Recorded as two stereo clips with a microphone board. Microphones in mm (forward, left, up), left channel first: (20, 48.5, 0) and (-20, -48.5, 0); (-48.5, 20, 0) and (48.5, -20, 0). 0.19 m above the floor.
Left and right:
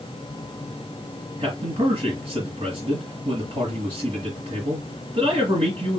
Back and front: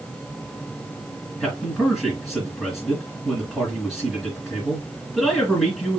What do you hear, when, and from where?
1.4 s a man speaking: 115° right, 2.5 m